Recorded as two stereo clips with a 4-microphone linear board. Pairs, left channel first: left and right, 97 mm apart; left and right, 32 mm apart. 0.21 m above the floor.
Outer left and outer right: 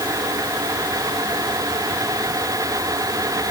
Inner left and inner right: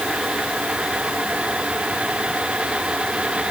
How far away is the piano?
I don't hear a piano.